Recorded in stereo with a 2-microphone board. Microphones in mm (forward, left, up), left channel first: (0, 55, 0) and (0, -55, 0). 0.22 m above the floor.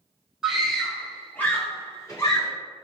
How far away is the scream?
About 1.6 m.